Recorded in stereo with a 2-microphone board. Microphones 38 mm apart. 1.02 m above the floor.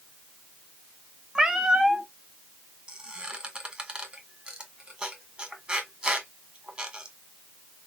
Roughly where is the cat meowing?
Centre.